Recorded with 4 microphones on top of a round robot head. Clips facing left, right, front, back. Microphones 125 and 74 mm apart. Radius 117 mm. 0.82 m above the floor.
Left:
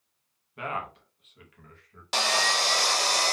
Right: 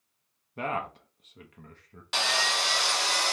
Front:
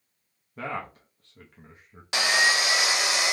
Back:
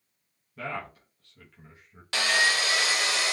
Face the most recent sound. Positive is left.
turn(degrees=65)